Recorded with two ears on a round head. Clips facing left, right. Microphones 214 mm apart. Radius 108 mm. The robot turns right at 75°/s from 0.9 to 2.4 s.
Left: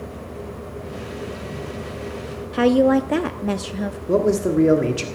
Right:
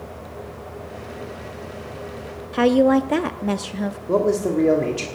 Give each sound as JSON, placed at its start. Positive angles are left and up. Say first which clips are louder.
{"t": 2.5, "sound": "a woman speaking", "louder": "even", "side_deg": 0, "distance_m": 0.6}
{"t": 4.1, "sound": "a man speaking", "louder": "left 1 dB", "side_deg": 15, "distance_m": 1.4}